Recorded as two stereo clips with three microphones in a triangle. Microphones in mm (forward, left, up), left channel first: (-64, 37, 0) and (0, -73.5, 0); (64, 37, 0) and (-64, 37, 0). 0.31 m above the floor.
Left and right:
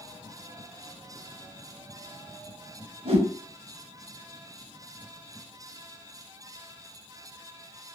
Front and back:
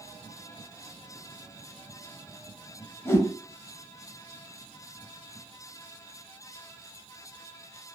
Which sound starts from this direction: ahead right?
A whoosh, at 3.0 s.